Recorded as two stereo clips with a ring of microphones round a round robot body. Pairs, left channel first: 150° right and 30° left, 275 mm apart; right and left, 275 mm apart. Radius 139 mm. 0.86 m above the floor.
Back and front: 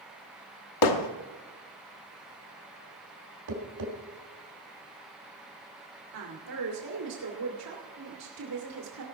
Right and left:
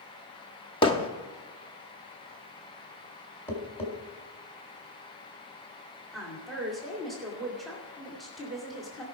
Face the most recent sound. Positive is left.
turn(degrees=0)